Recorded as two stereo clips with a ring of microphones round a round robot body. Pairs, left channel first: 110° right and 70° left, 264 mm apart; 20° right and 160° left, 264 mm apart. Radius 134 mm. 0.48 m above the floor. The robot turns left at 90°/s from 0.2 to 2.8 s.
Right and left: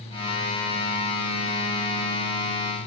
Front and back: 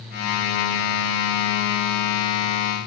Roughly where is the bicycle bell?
No bicycle bell in this recording.